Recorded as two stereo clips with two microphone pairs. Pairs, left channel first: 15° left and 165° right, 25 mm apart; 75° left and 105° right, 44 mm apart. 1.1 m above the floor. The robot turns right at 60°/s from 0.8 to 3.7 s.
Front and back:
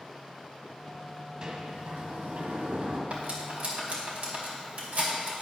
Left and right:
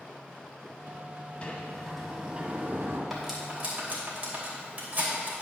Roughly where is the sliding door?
Behind left.